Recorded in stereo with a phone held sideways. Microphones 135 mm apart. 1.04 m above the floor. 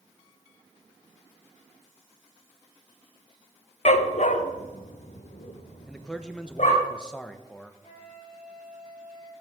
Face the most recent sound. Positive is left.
turn(degrees=-40)  # may be behind; listen again after turning